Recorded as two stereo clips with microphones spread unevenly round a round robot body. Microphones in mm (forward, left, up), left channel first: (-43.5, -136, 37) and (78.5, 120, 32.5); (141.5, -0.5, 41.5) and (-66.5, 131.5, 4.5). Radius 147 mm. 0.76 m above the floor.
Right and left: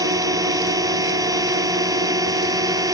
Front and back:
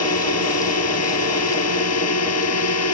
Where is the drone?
15° right.